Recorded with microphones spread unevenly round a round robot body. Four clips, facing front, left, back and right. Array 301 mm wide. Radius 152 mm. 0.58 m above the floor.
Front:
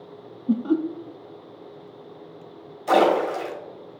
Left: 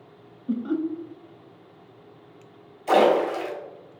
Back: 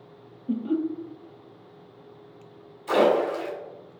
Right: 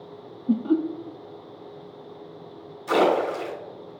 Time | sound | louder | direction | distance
0.5 | laughter | right 4 dB, front 4 dB | 35° right | 0.7 m
2.9 | a splash | left 2 dB, front 2 dB | 30° left | 3.5 m